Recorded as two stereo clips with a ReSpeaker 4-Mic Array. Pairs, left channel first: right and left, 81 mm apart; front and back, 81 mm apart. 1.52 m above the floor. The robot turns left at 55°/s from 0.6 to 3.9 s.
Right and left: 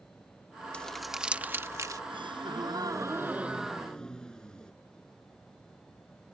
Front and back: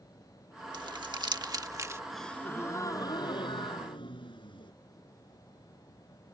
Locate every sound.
0.7 s crumpling: 165° right; by 2.0 s 125° left
2.1 s a gasp: 90° left; by 4.7 s 10° right